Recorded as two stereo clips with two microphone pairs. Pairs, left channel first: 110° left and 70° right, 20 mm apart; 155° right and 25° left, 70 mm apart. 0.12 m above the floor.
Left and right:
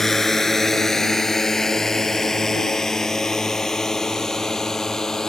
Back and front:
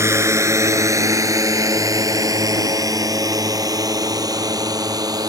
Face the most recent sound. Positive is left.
turn(degrees=45)